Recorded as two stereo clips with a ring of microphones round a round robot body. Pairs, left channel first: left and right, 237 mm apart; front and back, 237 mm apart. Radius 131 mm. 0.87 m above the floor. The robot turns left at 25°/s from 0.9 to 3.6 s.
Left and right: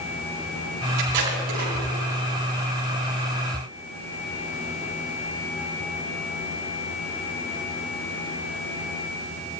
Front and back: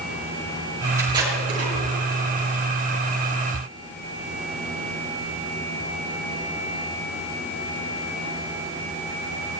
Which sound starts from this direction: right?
Tape being pulled, at 1.0 s.